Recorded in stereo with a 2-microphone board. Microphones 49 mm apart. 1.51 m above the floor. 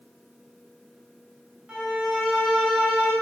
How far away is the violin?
About 1.9 m.